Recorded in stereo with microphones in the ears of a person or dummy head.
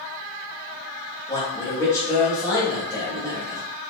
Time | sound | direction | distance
1.3 | a man speaking | 20° left (ahead or behind) | 1.2 m